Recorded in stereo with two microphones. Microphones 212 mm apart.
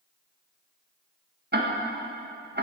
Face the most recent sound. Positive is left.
turn(degrees=-50)  # may be behind; listen again after turning